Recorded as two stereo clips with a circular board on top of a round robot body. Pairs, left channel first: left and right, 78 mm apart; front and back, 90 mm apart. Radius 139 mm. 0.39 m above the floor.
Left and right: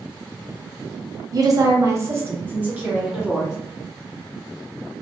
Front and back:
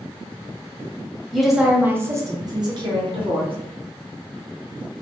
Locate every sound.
1.3 s a woman speaking: 85° right, 1.1 m; by 3.5 s 175° right, 1.6 m